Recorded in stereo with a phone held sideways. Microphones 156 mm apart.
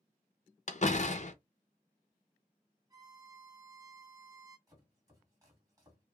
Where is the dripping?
No dripping in this recording.